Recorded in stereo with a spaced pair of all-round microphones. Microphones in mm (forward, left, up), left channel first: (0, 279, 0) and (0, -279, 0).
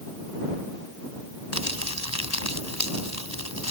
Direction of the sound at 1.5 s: 30° left (ahead or behind).